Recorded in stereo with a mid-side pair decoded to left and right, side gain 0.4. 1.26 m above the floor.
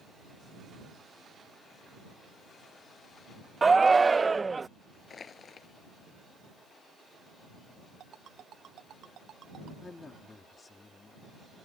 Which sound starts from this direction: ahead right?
A shout, at 3.6 s.